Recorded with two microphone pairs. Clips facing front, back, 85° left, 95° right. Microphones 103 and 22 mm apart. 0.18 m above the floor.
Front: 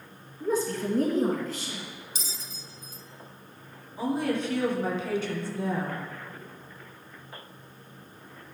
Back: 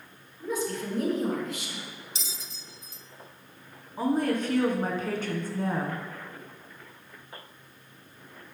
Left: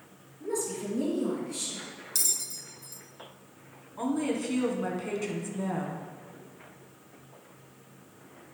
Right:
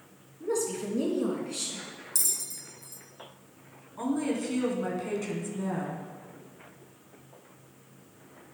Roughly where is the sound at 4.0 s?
Behind.